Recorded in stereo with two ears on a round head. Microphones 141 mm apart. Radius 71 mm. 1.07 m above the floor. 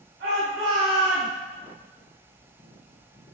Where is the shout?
80° right, 3 m; by 1.3 s 75° right (ahead or behind), 2 m.